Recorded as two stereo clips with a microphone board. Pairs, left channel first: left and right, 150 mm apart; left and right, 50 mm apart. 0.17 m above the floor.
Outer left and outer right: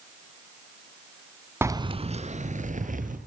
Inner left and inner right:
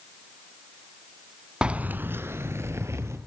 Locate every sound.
1.6 s keys jangling: 15° right (ahead or behind), 0.8 m; by 3.2 s 60° right (ahead or behind), 3 m